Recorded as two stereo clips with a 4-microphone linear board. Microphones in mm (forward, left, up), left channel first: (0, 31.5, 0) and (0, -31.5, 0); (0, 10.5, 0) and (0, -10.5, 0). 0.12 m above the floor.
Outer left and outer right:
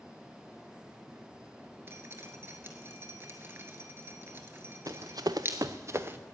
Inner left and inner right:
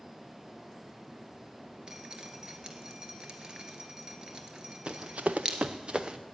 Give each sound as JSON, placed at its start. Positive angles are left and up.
{"t": 1.9, "sound": "dripping", "side_deg": -35, "distance_m": 1.5}
{"t": 4.9, "sound": "running footsteps", "side_deg": -65, "distance_m": 1.2}